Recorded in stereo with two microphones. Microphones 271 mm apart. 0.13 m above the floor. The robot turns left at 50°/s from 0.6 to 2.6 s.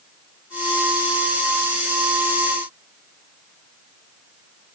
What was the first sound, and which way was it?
Only background noise.